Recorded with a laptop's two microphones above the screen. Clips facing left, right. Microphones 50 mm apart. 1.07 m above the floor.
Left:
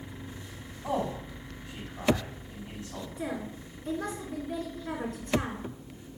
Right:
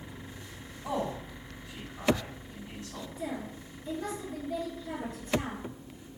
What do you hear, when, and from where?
0.8 s a man speaking: 20° left (ahead or behind), 5.5 m
3.2 s a woman speaking: 65° left (ahead or behind), 3.5 m